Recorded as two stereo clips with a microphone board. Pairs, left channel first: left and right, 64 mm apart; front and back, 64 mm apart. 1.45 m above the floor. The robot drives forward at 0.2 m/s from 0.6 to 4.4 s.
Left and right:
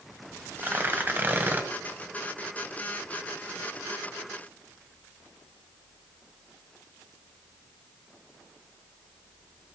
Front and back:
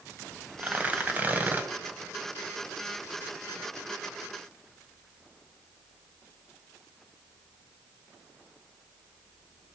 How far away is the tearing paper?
About 1.6 m.